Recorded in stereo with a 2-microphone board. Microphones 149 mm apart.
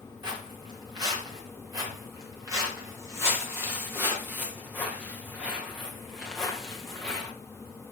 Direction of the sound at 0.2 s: 30° right (ahead or behind).